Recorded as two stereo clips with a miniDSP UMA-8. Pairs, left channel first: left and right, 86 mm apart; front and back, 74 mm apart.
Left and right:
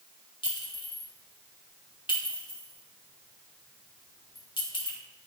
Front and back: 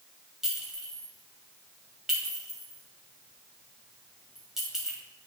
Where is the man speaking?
No man speaking in this recording.